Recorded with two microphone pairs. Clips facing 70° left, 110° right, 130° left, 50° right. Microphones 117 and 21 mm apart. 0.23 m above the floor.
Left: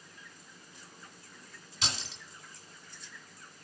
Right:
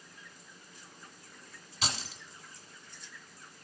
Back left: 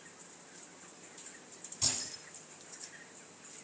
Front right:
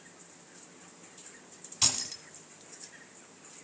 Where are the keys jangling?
70° right, 1.7 m.